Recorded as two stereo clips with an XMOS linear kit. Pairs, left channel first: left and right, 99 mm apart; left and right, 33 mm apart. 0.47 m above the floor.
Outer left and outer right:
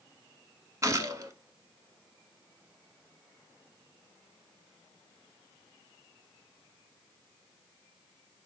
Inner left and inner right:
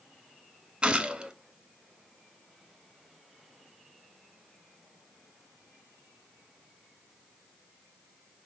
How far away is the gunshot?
About 0.6 m.